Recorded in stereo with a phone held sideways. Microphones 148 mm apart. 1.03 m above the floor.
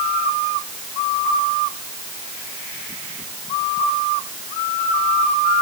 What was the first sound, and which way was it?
Only background noise.